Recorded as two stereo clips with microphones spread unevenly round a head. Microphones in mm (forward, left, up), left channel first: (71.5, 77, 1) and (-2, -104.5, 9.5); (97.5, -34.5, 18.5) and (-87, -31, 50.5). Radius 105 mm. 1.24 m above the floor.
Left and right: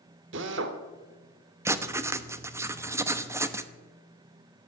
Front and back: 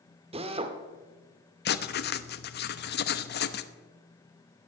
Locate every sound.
0.3 s a drill: 130° right, 1.5 m
1.6 s writing: 35° right, 0.9 m